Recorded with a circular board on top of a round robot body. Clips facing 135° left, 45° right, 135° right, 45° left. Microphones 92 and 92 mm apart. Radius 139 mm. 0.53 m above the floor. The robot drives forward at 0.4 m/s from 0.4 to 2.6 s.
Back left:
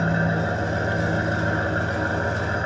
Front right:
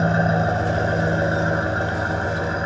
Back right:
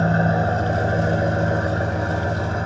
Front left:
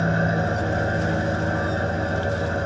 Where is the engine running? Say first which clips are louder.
Front right 4 dB, back right 3 dB; 85° right, 1.1 m; by 2.7 s 125° right, 1.4 m.